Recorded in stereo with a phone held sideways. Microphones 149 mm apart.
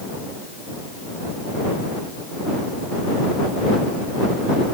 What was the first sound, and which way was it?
Only background noise.